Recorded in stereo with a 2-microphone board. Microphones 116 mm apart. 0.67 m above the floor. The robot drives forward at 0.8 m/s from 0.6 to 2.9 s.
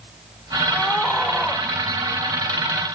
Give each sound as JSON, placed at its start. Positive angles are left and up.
{"t": 0.7, "sound": "a scream", "side_deg": 5, "distance_m": 2.5}